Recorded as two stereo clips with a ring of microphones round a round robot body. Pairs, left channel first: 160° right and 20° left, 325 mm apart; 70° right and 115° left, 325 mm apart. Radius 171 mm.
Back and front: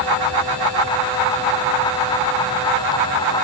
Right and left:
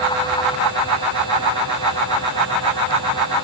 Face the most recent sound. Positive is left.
No sound to turn to.